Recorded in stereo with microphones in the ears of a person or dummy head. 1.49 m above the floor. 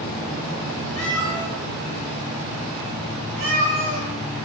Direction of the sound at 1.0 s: 5° left (ahead or behind).